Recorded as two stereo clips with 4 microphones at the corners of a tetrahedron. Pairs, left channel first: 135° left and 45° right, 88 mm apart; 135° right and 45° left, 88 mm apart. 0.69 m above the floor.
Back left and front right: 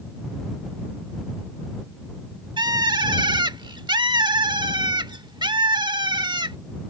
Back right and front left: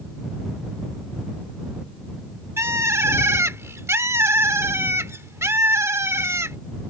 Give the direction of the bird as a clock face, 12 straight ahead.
12 o'clock.